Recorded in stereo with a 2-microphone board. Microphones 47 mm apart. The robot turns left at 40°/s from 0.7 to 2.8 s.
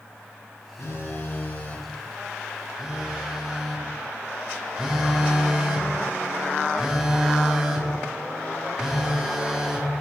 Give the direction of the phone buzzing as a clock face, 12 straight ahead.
10 o'clock.